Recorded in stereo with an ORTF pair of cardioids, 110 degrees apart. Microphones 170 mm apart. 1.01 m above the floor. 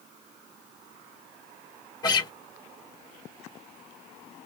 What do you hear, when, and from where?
2.0 s a guitar: 20° left, 3 m